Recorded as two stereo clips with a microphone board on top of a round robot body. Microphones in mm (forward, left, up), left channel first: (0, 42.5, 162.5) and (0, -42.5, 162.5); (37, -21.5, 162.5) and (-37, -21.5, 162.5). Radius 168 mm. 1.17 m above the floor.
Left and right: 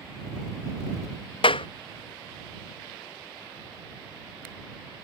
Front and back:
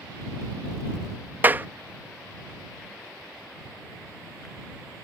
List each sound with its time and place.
1.4 s a clap: 110° left